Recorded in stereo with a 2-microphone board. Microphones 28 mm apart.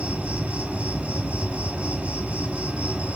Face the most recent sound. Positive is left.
turn(degrees=-50)  # may be behind; listen again after turning